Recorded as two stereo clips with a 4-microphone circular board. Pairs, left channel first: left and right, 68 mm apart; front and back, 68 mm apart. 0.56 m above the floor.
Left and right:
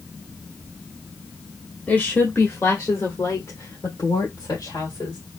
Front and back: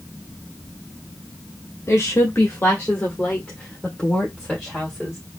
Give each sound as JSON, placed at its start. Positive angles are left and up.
{"t": 1.9, "sound": "a woman speaking", "azimuth_deg": 30, "distance_m": 1.1}